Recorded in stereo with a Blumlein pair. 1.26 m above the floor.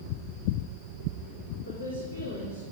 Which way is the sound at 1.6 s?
70° left.